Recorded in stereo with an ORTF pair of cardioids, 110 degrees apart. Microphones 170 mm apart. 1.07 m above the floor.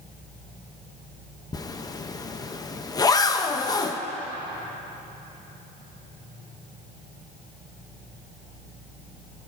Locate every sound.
1.5 s a zipper: 20° left, 0.7 m